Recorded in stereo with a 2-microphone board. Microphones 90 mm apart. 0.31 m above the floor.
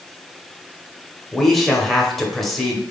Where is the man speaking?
Centre (ahead or behind), 0.9 m.